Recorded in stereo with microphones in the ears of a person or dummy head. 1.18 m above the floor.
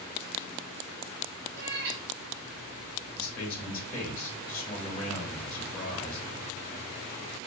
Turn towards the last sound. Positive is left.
turn(degrees=40)  # may be behind; listen again after turning